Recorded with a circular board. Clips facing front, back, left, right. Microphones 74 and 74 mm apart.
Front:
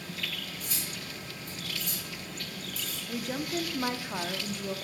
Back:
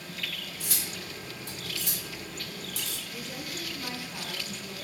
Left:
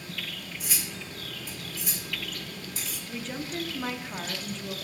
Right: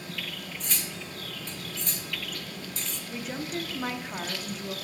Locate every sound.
0.6 s cutlery clinking: 170° left, 0.9 m
3.1 s a woman speaking: 10° right, 0.9 m